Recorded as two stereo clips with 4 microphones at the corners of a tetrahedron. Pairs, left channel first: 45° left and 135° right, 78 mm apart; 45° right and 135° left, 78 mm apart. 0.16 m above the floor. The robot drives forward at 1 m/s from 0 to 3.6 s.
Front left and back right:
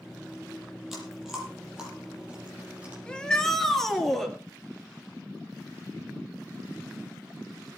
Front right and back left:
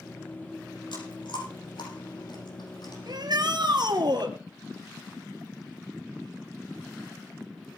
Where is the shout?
120° left, 3 m; by 4.3 s 130° left, 3 m.